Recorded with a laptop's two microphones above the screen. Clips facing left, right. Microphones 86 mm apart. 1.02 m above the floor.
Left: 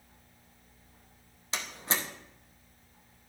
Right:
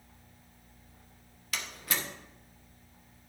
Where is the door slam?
25° left (ahead or behind), 0.8 m.